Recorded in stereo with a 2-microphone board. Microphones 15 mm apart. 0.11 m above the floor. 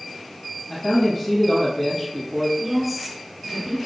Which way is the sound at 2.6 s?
10° right (ahead or behind).